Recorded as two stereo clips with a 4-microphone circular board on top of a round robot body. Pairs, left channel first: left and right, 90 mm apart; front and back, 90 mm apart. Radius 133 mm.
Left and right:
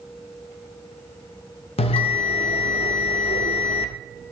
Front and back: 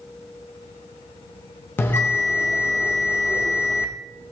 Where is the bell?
70° left, 0.6 m.